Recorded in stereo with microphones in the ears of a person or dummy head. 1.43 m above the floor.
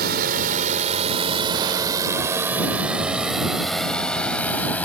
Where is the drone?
50° right (ahead or behind); by 4.9 s 10° left (ahead or behind).